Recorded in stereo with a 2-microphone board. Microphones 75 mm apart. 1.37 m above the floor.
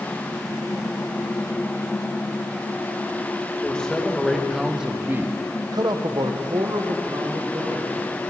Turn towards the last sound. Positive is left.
turn(degrees=-60)  # may be behind; listen again after turning